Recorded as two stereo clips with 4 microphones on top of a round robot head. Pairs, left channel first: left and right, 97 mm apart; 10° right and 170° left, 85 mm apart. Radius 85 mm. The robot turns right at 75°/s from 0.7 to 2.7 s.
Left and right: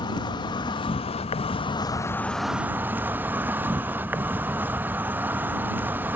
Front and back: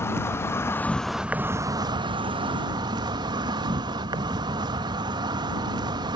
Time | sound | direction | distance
0.0 | an insect | 50° left | ?